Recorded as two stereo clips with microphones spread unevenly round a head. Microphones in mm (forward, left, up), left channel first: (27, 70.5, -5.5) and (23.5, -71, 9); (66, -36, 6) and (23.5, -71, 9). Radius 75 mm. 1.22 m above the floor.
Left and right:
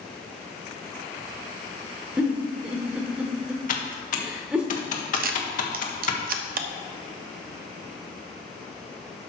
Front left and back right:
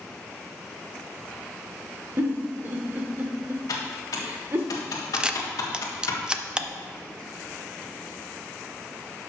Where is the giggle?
165° right, 1.0 m.